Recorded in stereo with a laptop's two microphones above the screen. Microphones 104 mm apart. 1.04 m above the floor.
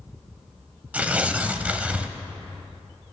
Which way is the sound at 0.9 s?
15° right (ahead or behind).